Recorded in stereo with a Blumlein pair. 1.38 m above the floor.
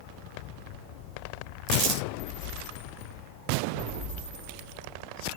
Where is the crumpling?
35° right, 7 m.